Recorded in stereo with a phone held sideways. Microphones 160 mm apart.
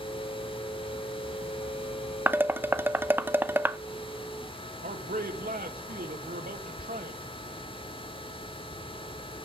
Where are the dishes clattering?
15° right (ahead or behind), 0.6 m.